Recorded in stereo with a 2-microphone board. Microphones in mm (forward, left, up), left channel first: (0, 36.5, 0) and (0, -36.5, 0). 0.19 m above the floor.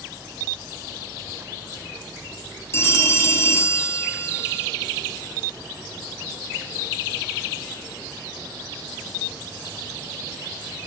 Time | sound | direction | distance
2.7 | a phone ringing | 35° left (ahead or behind) | 2.5 m